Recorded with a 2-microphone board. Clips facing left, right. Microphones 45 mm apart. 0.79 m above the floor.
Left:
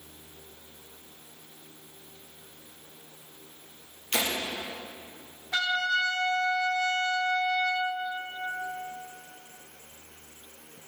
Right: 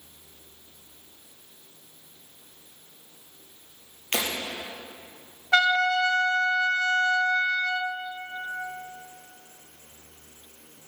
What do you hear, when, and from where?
4.1 s breaking glass: 55° right (ahead or behind), 4.5 m
5.5 s a trumpet: 70° right (ahead or behind), 0.8 m